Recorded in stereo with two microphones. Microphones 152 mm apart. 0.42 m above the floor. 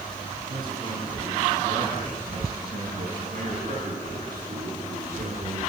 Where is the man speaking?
70° right (ahead or behind), 6 m; by 5.6 s 75° right (ahead or behind), 6.5 m.